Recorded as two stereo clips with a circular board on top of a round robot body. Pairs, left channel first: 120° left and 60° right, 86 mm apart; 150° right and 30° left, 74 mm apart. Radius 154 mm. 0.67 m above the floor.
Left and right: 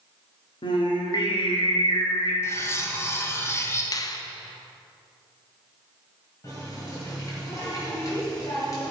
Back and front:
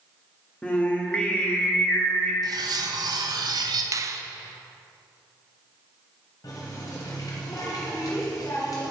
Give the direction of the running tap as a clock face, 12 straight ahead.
6 o'clock.